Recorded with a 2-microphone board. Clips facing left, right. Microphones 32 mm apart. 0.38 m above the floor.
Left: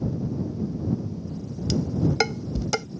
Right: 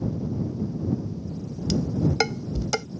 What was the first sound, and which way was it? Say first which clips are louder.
Dishes clattering: even; 5° left (ahead or behind).